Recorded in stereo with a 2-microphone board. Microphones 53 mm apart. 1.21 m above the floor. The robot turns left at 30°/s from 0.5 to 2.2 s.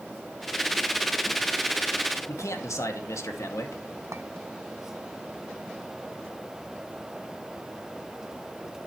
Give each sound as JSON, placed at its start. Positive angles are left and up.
{"t": 2.3, "sound": "a man speaking", "side_deg": 80, "distance_m": 2.0}
{"t": 4.1, "sound": "a clink", "side_deg": -70, "distance_m": 0.8}